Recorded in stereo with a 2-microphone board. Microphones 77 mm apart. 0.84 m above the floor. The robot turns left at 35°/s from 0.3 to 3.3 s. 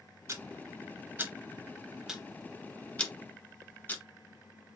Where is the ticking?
40° right (ahead or behind), 0.8 m; by 4.0 s 25° left (ahead or behind), 0.8 m.